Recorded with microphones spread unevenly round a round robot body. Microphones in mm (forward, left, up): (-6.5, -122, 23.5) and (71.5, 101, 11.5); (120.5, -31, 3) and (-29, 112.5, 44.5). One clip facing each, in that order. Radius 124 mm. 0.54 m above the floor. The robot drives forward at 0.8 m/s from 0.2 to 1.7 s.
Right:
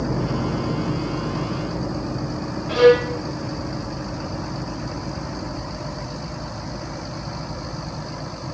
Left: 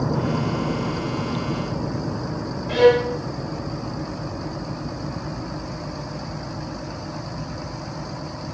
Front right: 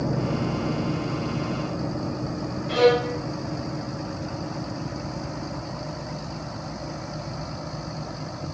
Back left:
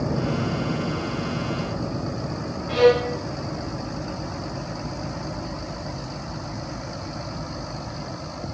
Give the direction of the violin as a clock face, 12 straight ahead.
1 o'clock.